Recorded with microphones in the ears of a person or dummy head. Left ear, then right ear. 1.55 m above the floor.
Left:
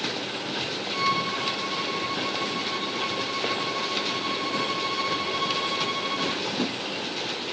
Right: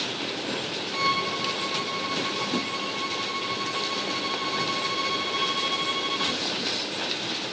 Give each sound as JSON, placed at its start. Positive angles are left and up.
{"t": 0.9, "sound": "a violin", "side_deg": -5}